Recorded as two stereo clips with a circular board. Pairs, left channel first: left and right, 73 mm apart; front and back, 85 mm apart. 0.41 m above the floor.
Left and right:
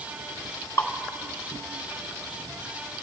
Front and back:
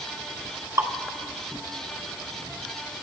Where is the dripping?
135° left, 2 m.